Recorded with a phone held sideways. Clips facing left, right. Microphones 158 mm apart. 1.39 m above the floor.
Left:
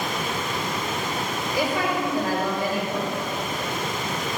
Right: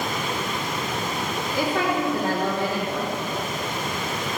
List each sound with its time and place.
1.5 s a woman speaking: 65° right (ahead or behind), 3.5 m